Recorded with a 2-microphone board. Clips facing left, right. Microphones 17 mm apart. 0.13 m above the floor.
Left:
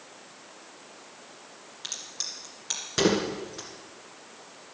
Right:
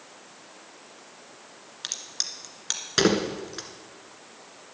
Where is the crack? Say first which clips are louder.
Right 3 dB; 30° right (ahead or behind), 1.9 m.